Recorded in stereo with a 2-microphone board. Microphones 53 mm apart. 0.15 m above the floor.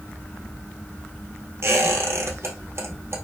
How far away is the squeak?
About 1.7 m.